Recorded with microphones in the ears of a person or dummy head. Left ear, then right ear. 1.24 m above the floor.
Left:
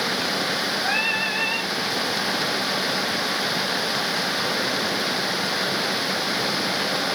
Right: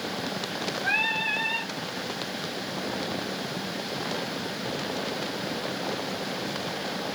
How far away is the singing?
About 1.9 m.